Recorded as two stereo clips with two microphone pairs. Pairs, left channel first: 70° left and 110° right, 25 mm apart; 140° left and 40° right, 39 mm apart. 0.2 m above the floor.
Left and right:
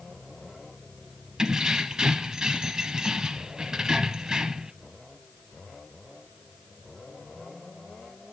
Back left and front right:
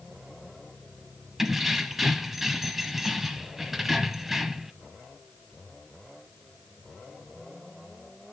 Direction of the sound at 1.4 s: 110° right.